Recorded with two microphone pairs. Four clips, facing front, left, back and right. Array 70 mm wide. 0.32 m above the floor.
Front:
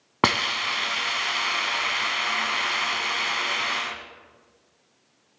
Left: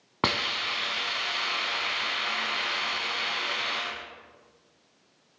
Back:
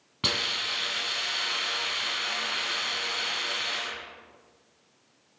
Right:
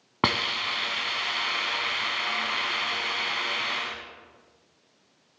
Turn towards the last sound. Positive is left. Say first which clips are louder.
# right 2 dB, front 9 dB
turn(degrees=-10)